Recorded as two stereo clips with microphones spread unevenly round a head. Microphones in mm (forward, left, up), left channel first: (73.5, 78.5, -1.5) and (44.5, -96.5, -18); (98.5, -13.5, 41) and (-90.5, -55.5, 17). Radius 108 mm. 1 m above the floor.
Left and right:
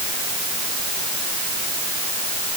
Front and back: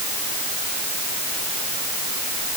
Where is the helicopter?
I don't hear a helicopter.